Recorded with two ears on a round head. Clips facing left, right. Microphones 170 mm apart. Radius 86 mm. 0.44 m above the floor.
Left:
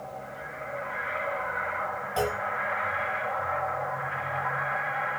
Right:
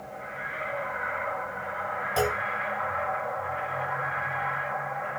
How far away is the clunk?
About 1.6 m.